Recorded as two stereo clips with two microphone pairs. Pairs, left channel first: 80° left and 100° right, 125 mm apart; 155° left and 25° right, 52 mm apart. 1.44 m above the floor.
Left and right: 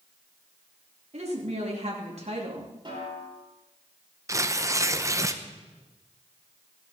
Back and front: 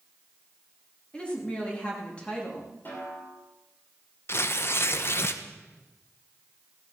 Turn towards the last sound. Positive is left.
turn(degrees=-165)